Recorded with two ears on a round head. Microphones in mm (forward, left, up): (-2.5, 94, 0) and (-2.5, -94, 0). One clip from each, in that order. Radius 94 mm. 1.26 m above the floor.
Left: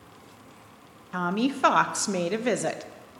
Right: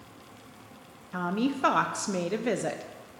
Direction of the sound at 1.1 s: 20° left (ahead or behind).